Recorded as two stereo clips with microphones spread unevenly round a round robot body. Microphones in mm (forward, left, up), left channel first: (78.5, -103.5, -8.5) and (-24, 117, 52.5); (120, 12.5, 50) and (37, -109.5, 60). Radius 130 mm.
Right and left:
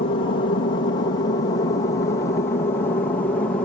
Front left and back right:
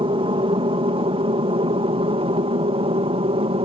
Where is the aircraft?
95° right; by 3.6 s 125° right.